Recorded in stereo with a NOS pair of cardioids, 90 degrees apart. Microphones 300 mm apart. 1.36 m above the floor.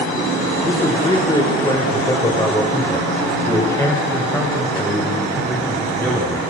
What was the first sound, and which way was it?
A man speaking, 15° left.